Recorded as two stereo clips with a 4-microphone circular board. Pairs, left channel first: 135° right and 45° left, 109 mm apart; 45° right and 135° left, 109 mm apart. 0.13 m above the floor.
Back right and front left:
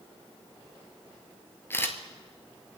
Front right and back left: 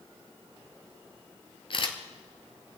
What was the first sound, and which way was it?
A camera shutter, 70° right.